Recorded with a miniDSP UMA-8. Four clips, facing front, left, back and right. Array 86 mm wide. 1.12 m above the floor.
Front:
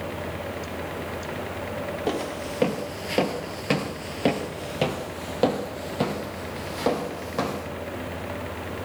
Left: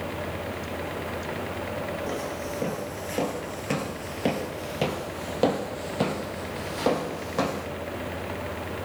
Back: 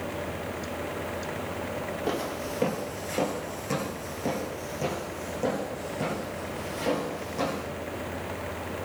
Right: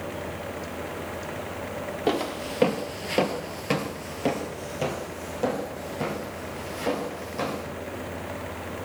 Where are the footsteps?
75° right, 1.6 m; by 7.7 s 50° left, 3 m.